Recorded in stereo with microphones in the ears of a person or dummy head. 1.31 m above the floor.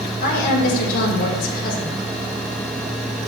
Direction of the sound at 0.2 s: 45° left (ahead or behind).